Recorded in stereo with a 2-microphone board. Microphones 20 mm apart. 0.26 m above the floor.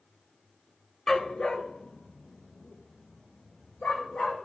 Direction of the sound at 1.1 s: 30° left (ahead or behind).